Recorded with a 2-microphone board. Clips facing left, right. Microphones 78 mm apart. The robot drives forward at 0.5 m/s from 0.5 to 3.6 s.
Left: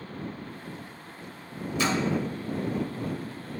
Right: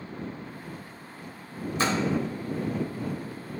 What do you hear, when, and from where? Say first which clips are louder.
1.8 s a splash: even; 40° right (ahead or behind), 0.9 m; by 2.0 s 45° right (ahead or behind), 0.9 m